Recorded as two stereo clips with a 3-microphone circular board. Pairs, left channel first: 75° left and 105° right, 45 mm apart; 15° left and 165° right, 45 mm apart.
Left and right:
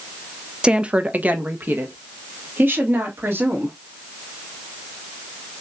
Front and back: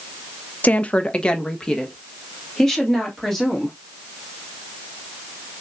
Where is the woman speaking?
35° right, 0.6 m; by 3.7 s 65° right, 2.5 m.